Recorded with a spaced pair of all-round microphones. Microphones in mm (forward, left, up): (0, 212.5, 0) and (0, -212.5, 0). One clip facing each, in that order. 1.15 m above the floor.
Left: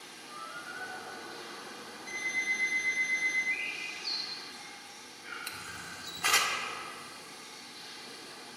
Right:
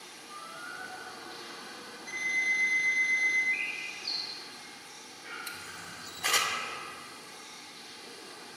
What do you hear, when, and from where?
0.3 s a squeak: 10° right (ahead or behind), 2.5 m
2.1 s an alarm clock: 5° right (ahead or behind), 2 m
3.5 s a bird: 5° right (ahead or behind), 1.8 m
5.5 s a camera shutter: 25° left (ahead or behind), 0.5 m